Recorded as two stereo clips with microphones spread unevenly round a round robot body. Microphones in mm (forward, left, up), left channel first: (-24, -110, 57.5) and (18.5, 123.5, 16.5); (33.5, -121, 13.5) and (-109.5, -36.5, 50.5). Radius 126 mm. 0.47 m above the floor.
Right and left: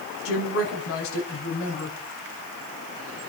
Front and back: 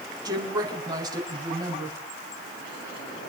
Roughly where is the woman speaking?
Behind right.